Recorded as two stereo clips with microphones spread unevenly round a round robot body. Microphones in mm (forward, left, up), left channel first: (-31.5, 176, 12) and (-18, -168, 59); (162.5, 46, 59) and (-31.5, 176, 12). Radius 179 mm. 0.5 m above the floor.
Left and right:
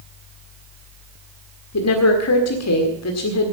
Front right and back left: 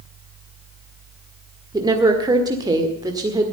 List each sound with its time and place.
1.7 s a woman speaking: 85° left, 1.8 m